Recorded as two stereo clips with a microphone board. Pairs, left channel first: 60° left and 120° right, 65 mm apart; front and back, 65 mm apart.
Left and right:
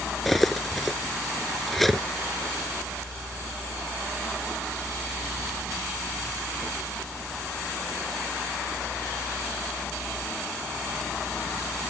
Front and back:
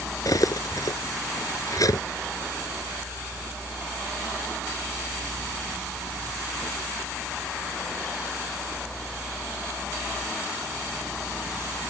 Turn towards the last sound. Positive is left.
turn(degrees=-30)